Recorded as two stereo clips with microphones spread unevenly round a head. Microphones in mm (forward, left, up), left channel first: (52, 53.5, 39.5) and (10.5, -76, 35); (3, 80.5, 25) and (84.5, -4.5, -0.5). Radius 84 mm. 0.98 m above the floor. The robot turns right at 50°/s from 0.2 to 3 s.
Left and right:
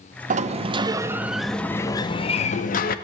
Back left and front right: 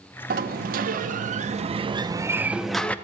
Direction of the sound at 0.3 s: 75° right.